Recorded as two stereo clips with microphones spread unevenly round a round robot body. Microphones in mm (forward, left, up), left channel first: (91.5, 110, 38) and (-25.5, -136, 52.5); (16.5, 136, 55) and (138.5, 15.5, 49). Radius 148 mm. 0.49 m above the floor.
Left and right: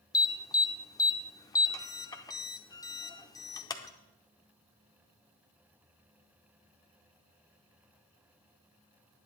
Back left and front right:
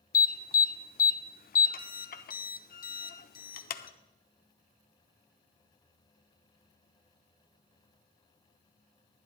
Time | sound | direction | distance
0.1 | an alarm | 135° left | 0.7 m